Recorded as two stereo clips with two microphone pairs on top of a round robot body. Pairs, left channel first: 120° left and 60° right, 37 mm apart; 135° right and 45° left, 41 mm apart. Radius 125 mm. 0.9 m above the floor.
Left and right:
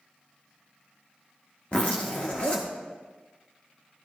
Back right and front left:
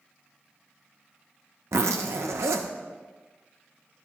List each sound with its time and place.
1.7 s a zipper: 60° left, 0.6 m